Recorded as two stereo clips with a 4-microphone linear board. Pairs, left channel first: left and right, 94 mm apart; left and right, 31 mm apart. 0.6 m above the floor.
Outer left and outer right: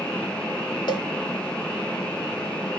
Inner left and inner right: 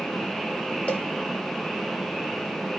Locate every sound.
0.9 s a cowbell: 55° left (ahead or behind), 1.3 m